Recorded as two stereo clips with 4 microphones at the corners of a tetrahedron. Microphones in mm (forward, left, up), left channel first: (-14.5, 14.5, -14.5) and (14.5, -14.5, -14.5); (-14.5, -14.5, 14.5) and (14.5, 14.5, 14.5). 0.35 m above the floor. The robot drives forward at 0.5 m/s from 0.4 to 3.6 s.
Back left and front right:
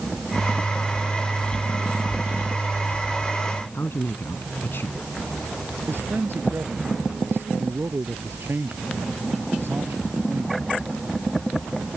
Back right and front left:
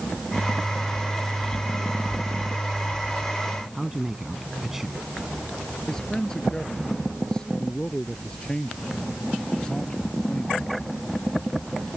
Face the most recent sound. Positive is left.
turn(degrees=-65)